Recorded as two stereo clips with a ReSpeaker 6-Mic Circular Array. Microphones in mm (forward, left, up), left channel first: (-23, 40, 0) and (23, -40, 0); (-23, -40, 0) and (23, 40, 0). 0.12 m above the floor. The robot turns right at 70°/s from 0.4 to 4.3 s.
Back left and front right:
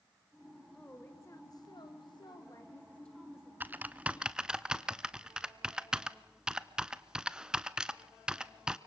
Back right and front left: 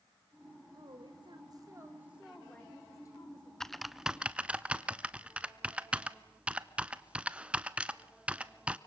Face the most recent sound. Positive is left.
turn(degrees=5)